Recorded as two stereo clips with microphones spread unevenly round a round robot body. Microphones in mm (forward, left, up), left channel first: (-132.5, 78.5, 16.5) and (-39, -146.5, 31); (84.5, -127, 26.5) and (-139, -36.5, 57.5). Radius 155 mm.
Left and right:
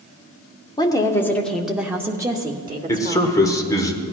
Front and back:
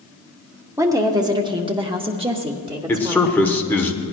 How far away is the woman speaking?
About 0.9 m.